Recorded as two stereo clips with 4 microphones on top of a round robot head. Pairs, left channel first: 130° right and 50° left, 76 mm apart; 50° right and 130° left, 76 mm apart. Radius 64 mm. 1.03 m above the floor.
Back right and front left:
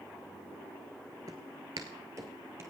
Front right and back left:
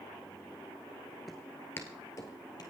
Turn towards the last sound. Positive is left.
turn(degrees=-5)